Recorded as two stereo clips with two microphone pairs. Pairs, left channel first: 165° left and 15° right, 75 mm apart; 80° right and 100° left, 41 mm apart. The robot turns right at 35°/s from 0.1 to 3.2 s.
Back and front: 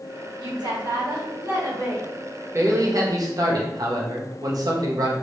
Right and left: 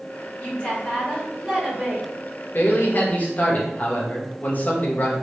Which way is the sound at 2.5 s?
60° right.